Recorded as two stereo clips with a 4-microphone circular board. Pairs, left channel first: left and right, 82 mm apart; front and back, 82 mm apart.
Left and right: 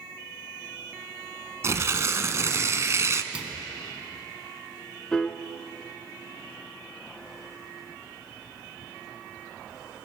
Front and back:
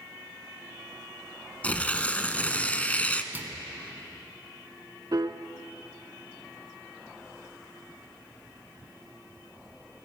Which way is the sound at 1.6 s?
65° right.